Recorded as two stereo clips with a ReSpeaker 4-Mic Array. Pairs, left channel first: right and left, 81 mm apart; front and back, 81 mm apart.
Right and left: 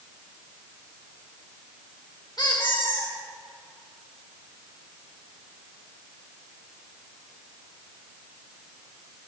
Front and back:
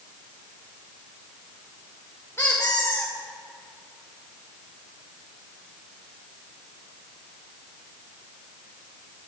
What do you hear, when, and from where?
2.4 s a squeak: 60° right, 3.5 m